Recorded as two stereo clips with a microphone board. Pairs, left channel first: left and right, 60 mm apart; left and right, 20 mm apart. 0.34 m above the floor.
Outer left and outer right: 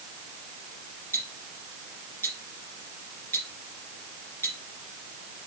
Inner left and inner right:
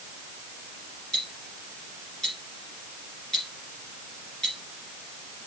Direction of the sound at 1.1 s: 40° left (ahead or behind).